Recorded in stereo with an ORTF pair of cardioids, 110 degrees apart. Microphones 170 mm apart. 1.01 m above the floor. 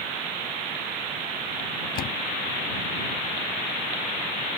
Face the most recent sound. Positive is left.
turn(degrees=60)